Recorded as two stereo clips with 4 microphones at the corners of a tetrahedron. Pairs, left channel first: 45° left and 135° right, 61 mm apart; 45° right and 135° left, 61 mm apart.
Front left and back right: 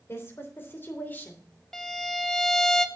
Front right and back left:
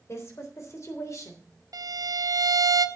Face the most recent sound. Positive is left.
turn(degrees=125)